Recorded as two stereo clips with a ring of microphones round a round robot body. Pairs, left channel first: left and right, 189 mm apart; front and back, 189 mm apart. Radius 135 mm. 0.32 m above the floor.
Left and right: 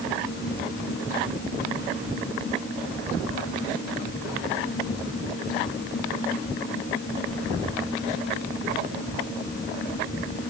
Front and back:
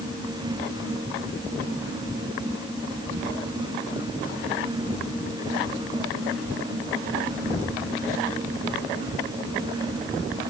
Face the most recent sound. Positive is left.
No sound to turn to.